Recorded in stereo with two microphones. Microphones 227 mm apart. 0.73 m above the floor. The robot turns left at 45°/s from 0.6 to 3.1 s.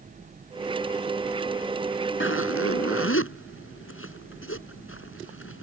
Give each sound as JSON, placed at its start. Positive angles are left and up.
{"t": 2.2, "sound": "a zipper", "side_deg": 65}